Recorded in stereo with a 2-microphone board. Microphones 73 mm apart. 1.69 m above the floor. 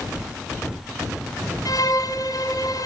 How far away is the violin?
About 4 m.